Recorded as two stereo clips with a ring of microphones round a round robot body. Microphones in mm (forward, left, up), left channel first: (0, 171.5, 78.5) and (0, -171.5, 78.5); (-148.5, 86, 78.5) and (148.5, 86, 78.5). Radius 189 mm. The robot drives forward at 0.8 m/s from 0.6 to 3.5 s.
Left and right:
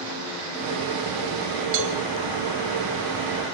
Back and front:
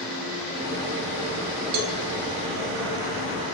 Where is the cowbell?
35° right, 3.5 m.